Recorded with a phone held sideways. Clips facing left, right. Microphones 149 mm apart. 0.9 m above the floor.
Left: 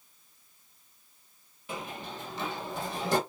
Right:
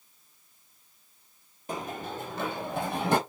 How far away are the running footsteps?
About 1.2 m.